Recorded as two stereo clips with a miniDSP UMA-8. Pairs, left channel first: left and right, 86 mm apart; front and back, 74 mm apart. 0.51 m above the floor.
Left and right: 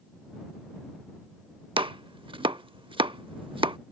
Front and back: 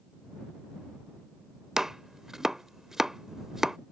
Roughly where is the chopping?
Right.